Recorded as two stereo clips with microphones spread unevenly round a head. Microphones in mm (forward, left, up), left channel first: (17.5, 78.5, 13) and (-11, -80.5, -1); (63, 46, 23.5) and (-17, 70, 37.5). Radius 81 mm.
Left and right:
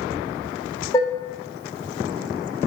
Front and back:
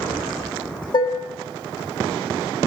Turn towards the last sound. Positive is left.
turn(degrees=15)